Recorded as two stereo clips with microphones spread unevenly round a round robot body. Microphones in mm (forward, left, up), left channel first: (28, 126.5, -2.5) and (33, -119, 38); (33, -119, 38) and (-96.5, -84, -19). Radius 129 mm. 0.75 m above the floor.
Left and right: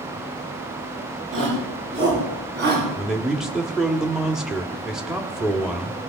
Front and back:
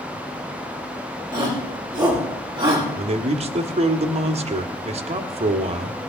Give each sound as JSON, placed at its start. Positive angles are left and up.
{"t": 1.3, "sound": "a shout", "azimuth_deg": -135, "distance_m": 9.5}
{"t": 3.0, "sound": "a man speaking", "azimuth_deg": 180, "distance_m": 1.4}